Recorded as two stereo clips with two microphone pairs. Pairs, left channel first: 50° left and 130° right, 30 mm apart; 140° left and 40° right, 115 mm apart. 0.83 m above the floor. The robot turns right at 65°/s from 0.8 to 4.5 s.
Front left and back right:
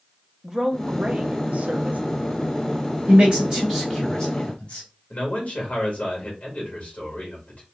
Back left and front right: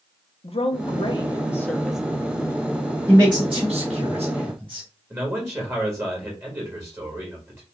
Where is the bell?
No bell in this recording.